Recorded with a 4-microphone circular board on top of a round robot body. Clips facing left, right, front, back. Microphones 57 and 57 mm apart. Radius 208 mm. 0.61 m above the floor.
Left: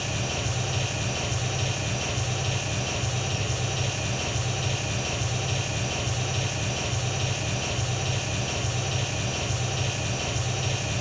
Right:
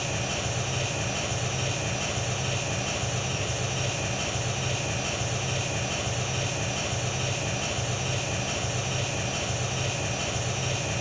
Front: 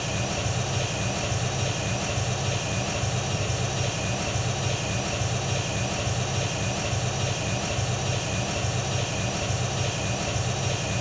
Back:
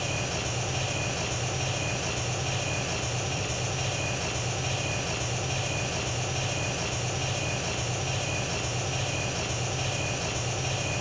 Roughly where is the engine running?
Ahead.